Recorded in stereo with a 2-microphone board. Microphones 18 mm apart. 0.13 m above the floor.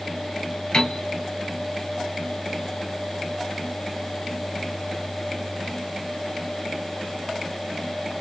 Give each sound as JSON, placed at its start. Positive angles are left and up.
{"t": 0.7, "sound": "a piano", "side_deg": 45, "distance_m": 1.1}